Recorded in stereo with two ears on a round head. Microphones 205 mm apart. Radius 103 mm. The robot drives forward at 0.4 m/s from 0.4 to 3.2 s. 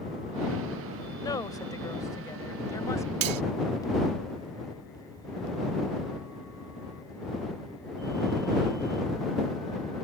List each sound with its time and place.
1.2 s a woman speaking: 15° left (ahead or behind)
3.2 s cutlery clinking: 70° right (ahead or behind)